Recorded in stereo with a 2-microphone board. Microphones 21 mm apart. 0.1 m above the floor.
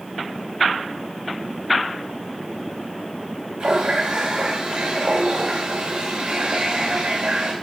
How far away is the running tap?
About 5.5 m.